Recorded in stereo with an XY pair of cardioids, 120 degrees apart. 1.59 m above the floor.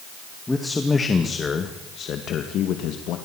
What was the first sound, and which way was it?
A man speaking, 10° left.